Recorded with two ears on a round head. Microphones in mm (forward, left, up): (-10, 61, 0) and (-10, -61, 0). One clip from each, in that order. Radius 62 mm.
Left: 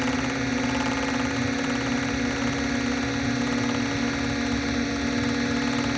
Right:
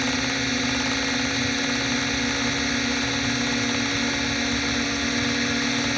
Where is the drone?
55° right (ahead or behind); by 6.0 s 45° right (ahead or behind).